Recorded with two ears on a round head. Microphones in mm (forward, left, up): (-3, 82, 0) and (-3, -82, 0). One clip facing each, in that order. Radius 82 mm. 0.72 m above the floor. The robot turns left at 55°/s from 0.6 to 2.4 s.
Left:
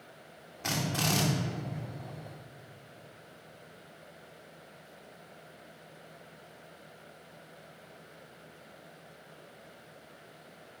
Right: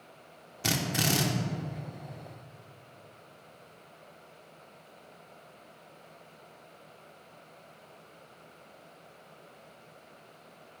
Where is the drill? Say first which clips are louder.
Right 2 dB; 135° right, 1.3 m; by 1.2 s 170° right, 1.3 m.